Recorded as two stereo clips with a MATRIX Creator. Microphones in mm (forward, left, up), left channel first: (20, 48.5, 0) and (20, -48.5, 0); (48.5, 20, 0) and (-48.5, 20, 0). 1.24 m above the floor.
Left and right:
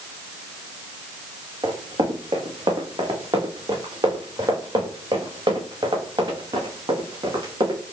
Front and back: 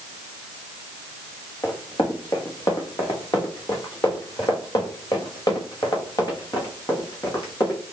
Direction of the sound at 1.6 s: 55° right.